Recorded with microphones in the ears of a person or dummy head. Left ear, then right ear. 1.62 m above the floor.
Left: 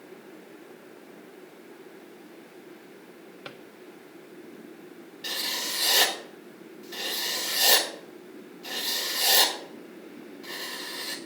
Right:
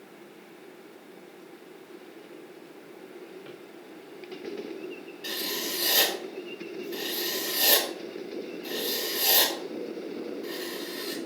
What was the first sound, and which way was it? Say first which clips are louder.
A drawer: left 2 dB; 60° left (ahead or behind).